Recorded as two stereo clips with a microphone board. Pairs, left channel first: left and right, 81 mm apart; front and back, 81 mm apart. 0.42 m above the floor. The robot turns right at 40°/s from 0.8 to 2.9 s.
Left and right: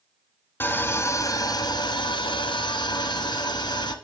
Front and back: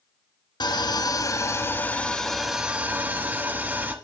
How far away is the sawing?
About 1.6 m.